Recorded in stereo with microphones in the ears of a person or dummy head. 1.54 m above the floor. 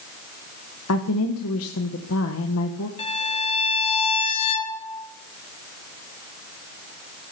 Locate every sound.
0.9 s a woman speaking: 75° left (ahead or behind), 1.4 m
3.0 s a violin: 25° left (ahead or behind), 1.6 m